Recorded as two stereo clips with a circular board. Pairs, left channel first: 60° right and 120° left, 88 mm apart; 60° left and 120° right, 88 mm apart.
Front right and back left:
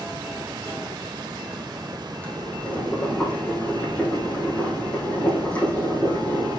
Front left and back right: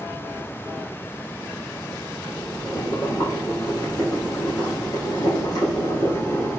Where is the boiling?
15° left, 4 m.